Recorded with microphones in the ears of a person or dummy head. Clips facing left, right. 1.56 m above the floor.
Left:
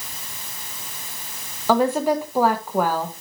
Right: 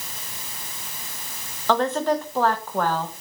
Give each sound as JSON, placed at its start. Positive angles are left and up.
{"t": 1.7, "sound": "a woman speaking", "side_deg": 5, "distance_m": 1.3}